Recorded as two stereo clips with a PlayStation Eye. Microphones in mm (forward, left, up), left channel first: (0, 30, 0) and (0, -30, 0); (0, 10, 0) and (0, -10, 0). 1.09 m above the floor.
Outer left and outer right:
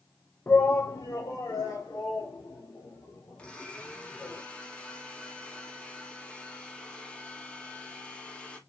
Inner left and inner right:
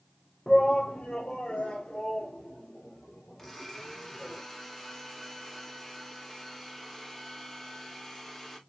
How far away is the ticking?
No ticking in this recording.